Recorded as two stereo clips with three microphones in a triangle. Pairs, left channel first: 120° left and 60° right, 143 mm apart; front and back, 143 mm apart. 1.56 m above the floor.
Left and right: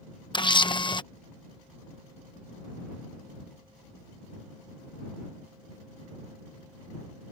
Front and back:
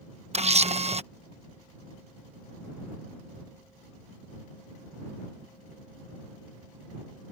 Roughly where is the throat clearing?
No throat clearing in this recording.